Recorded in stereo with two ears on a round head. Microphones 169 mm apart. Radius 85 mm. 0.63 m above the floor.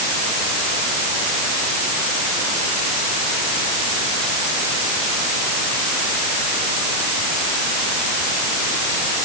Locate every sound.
Only background noise.